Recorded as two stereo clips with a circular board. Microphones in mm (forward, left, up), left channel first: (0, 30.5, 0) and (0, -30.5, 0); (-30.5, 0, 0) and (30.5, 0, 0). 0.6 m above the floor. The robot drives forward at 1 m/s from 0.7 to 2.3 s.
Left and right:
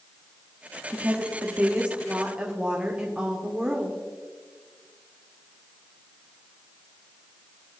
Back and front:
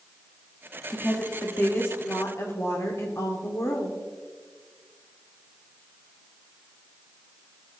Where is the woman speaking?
100° right, 1.2 m; by 4.0 s 155° right, 1.9 m.